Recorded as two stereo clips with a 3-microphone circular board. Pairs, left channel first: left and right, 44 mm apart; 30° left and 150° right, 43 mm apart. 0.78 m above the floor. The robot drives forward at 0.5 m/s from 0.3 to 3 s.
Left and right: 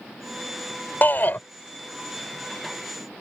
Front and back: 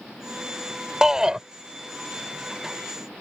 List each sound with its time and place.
1.0 s a shout: 135° left